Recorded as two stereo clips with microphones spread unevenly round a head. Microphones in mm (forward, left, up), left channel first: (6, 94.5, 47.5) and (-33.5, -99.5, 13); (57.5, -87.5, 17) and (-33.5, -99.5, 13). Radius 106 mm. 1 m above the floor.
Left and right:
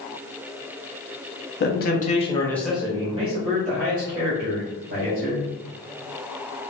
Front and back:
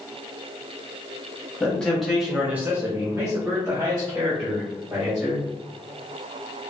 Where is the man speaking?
85° left, 1.1 m; by 5.5 s 120° right, 2.5 m.